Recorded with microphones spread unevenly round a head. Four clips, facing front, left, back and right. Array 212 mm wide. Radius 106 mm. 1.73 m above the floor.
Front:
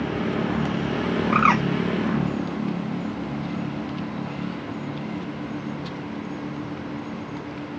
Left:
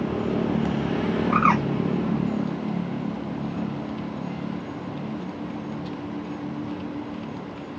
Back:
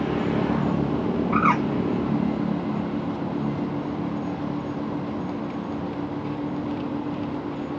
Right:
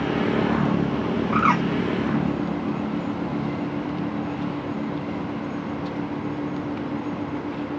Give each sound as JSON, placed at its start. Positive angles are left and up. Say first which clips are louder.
{"t": 1.3, "sound": "a bird", "louder": "even, front 2 dB", "azimuth_deg": 55, "distance_m": 0.7}